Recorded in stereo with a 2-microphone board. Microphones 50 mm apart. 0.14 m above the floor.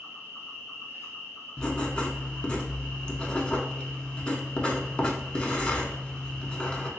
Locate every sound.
0.0 s an insect: 50° left (ahead or behind), 1.0 m
1.6 s writing: 20° left (ahead or behind), 0.6 m